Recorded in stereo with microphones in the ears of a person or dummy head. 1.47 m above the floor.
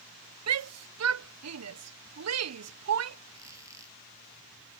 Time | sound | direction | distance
0.5 | a shout | 80° right | ?
3.3 | a squeak | 15° right (ahead or behind) | ?